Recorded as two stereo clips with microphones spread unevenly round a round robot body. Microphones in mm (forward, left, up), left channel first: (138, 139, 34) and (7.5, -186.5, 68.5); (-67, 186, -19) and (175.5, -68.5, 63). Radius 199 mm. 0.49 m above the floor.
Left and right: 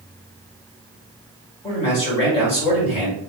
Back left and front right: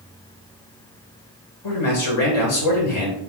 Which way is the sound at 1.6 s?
135° left.